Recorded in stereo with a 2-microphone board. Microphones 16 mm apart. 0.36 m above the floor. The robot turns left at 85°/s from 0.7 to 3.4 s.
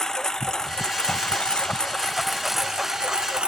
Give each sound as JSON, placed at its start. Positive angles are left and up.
{"t": 0.0, "sound": "a lawn mower", "azimuth_deg": 140}